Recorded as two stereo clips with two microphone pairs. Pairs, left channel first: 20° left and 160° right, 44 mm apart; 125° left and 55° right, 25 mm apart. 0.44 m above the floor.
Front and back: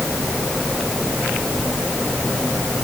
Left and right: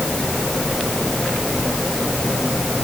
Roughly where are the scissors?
No scissors in this recording.